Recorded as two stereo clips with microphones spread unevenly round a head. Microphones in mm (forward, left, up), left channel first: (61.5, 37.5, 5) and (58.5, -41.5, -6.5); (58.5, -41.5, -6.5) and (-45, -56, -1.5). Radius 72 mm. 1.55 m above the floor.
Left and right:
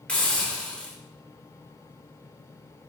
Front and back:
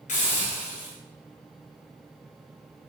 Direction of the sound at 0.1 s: 15° left.